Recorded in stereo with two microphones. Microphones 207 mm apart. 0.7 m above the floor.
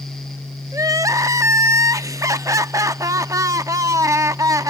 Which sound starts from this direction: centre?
Crying, at 0.7 s.